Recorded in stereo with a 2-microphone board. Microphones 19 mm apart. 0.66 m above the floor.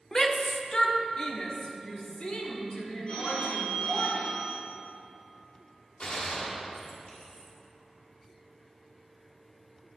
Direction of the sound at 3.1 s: 50° left (ahead or behind).